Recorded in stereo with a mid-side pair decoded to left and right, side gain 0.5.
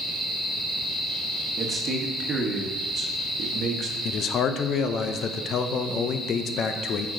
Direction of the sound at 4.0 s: 55° left.